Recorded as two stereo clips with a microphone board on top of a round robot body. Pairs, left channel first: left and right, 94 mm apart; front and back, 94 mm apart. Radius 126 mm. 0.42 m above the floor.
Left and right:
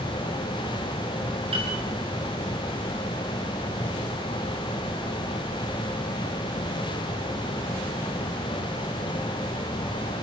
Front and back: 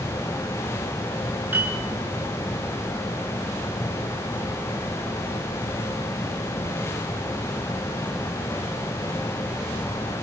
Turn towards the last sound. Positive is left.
turn(degrees=-110)